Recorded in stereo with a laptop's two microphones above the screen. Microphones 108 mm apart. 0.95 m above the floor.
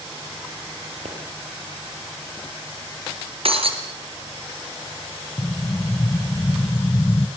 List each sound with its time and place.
1.1 s a pop: 85° right, 6 m
3.5 s breaking glass: 60° right (ahead or behind), 3 m
5.4 s an explosion: 30° left (ahead or behind), 0.5 m